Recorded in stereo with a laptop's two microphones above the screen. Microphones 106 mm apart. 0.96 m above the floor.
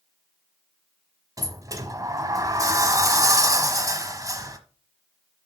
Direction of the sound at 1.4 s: 35° right (ahead or behind).